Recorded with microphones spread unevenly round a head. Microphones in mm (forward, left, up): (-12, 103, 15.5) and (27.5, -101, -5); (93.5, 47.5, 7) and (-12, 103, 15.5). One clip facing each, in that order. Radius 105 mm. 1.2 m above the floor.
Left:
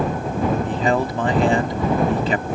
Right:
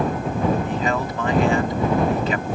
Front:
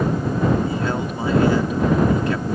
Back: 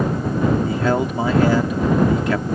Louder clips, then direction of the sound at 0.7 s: Left 3 dB, back 4 dB; 160° left.